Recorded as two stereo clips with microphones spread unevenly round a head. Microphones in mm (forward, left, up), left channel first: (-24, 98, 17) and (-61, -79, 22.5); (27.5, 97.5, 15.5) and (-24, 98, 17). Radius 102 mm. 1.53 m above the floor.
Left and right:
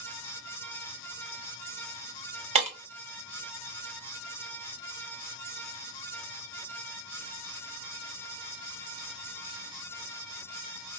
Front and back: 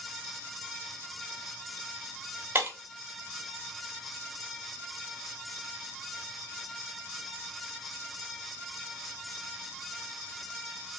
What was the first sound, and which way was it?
Breaking glass, 130° right.